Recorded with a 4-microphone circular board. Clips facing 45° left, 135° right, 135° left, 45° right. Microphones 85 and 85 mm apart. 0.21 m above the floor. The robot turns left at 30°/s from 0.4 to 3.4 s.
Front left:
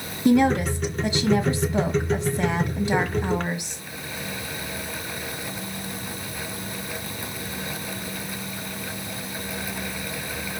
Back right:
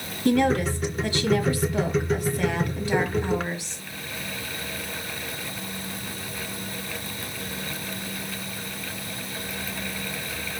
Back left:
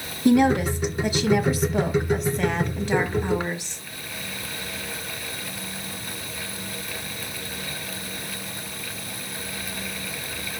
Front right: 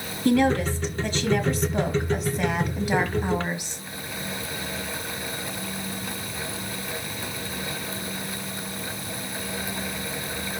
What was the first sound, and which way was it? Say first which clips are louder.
A woman speaking: front left 2 dB, back left 3 dB; 95° left.